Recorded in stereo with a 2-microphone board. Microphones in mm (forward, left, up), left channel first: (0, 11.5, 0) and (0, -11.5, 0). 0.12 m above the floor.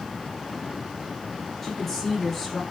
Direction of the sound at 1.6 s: 15° left (ahead or behind).